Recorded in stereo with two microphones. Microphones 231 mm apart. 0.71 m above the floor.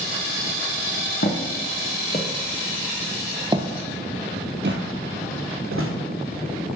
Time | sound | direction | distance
1.2 | footsteps | 50° left (ahead or behind) | 1.4 m